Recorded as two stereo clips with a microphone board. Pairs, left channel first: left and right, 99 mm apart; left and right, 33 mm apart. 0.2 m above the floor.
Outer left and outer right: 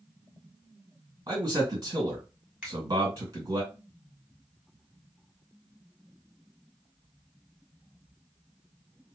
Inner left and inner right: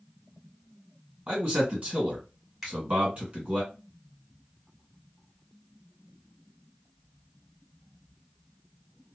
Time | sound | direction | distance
1.3 | a man speaking | 40° right (ahead or behind) | 1.9 m
2.6 | a finger snap | 10° right (ahead or behind) | 1.4 m